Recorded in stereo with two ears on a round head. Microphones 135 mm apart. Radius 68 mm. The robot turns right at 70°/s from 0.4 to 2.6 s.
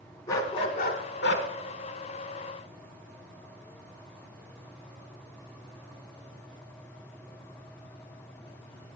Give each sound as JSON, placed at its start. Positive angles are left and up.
{"t": 0.3, "sound": "a dog barking", "azimuth_deg": 25, "distance_m": 1.1}